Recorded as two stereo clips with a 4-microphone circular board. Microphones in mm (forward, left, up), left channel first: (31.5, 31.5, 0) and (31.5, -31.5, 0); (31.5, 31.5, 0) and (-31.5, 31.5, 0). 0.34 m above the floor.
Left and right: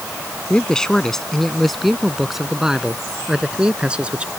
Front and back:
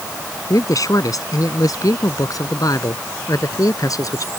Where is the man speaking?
15° left; by 4.3 s 20° right.